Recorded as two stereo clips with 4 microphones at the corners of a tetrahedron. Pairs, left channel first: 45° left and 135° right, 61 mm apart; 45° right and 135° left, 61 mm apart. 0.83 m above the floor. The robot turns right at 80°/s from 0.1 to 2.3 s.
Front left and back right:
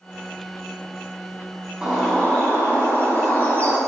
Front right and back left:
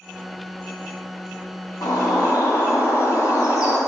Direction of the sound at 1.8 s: 60° right.